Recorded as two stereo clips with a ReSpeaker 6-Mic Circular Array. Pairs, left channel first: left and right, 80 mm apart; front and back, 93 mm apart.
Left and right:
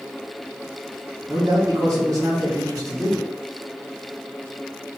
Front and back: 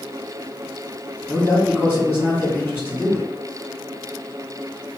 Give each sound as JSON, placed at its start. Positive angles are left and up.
{"t": 1.3, "sound": "a man speaking", "azimuth_deg": -75, "distance_m": 1.5}